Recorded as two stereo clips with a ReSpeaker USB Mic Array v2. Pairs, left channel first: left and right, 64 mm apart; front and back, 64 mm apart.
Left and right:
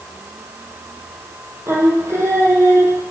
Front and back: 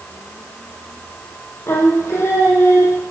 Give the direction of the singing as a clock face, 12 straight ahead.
2 o'clock.